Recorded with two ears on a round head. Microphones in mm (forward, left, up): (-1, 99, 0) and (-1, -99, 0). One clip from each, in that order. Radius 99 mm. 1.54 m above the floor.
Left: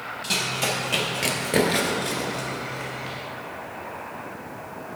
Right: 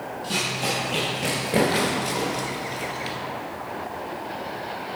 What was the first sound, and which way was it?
Running footsteps, 60° left (ahead or behind).